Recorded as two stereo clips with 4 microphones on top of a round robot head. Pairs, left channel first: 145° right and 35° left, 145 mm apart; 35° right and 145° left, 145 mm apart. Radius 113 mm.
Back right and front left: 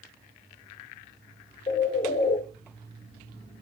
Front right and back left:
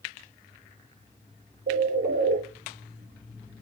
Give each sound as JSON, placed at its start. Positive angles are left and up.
{"t": 1.7, "sound": "a bird", "azimuth_deg": 165, "distance_m": 2.5}